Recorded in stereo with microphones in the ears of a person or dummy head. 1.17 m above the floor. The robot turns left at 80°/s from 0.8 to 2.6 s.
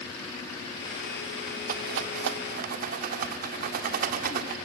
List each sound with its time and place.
1.7 s a rattle: 50° right (ahead or behind), 1.5 m